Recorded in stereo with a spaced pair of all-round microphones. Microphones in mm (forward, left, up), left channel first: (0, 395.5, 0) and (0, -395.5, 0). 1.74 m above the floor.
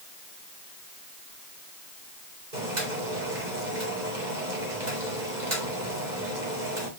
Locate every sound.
2.5 s boiling: 65° right (ahead or behind), 4 m